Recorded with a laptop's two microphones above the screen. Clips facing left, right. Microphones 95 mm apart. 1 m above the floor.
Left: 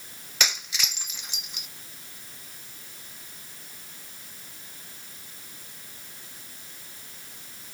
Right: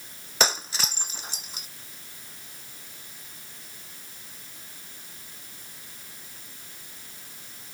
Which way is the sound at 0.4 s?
40° right (ahead or behind).